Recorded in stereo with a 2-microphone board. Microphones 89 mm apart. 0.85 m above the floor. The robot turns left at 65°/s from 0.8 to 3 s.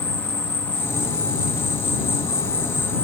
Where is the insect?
160° left; by 3.0 s 15° left.